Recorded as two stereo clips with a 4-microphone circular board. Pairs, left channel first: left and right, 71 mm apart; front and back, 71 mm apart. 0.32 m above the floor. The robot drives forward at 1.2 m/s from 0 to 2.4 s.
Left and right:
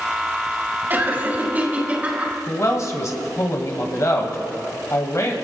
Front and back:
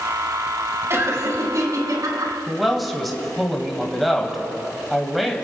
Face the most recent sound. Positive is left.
turn(degrees=90)